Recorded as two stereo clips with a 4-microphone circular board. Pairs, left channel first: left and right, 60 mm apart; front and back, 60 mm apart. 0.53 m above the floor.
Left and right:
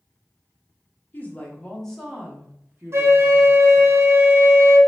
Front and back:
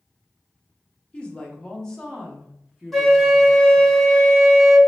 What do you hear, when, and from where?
1.1 s a woman speaking: 60° left, 1.0 m; by 3.9 s 105° right, 1.2 m
2.9 s a flute: 90° right, 0.9 m